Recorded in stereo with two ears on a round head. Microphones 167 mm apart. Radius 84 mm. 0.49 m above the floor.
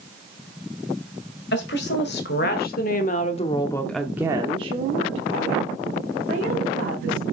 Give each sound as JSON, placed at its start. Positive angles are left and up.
{"t": 1.5, "sound": "a woman speaking", "side_deg": 65, "distance_m": 2.0}